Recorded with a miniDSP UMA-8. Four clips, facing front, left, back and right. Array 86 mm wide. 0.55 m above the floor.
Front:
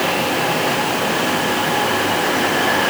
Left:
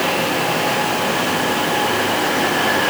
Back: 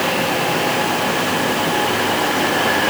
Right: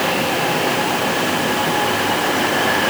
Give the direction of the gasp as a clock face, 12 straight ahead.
I don't hear a gasp.